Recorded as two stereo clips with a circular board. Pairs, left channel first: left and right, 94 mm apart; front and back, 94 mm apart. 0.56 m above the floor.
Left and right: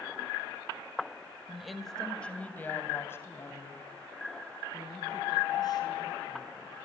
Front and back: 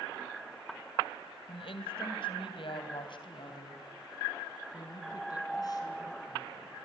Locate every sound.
1.5 s a woman speaking: 5° right, 2.5 m; by 6.8 s 50° left, 6.5 m